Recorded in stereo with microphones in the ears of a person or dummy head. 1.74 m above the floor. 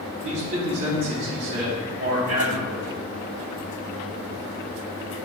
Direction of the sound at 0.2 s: 50° right (ahead or behind).